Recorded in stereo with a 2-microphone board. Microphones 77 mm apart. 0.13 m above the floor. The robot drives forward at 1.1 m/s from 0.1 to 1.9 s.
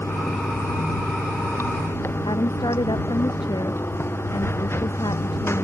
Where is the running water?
35° left (ahead or behind); by 5.6 s 30° left (ahead or behind).